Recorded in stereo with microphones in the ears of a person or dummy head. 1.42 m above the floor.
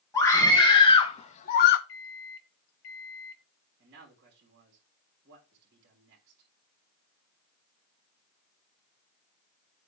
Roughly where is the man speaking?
Right.